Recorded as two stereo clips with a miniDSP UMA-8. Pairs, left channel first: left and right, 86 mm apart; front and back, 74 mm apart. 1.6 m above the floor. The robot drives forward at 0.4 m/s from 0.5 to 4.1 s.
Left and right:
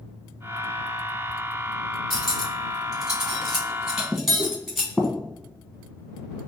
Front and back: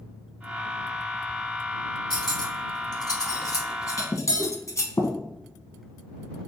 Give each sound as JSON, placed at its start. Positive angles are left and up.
{"t": 2.1, "sound": "cutlery clinking", "azimuth_deg": 0, "distance_m": 1.6}
{"t": 4.4, "sound": "a whoosh", "azimuth_deg": -160, "distance_m": 1.1}